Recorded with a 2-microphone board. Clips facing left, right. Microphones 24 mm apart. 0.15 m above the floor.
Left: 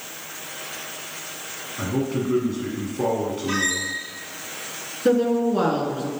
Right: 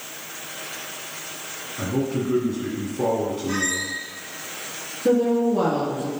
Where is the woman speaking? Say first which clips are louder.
Even; 45° left (ahead or behind), 1.9 m.